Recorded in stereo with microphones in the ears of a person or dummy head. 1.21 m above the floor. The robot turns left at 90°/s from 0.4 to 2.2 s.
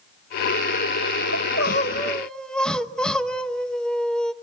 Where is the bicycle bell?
I don't hear a bicycle bell.